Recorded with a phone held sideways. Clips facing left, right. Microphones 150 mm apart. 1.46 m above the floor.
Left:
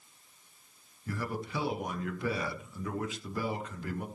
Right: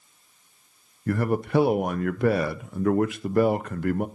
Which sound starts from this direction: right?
A man speaking, at 1.1 s.